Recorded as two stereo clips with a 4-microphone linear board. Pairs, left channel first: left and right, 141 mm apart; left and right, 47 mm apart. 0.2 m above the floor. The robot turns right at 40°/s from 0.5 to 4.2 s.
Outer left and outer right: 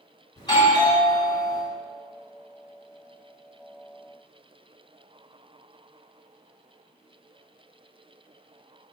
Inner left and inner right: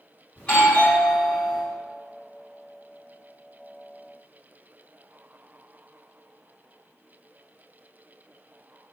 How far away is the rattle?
I don't hear a rattle.